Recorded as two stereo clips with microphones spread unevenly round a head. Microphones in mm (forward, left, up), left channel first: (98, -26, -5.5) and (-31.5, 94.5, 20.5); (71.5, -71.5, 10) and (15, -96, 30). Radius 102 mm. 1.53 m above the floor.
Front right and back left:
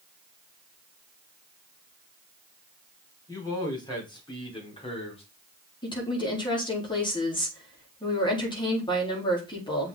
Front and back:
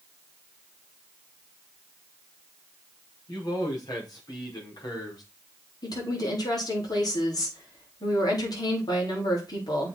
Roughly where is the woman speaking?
Ahead.